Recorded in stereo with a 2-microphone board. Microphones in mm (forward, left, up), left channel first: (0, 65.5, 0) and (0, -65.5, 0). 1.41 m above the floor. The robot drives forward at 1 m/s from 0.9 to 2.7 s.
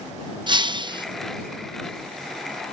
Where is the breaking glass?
35° right (ahead or behind).